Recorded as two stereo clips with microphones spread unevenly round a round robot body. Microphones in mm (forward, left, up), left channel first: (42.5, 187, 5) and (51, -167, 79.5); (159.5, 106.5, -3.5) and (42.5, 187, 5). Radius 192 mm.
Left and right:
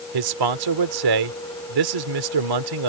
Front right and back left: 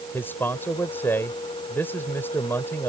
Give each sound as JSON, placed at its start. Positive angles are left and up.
{"t": 0.1, "sound": "a man speaking", "azimuth_deg": -115}